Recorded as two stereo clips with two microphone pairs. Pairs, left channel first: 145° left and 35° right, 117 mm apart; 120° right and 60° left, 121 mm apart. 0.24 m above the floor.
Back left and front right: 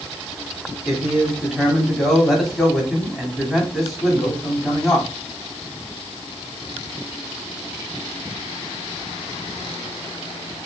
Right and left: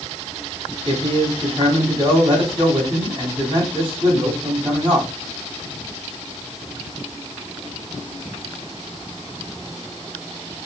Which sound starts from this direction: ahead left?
A man speaking, at 0.8 s.